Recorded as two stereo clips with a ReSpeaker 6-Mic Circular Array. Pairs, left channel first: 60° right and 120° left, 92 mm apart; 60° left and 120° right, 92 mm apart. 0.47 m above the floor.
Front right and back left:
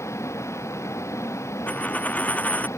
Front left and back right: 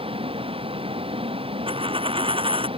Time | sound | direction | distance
0.0 | a vehicle | 120° right | ?
1.7 | a dropped coin | 135° right | ?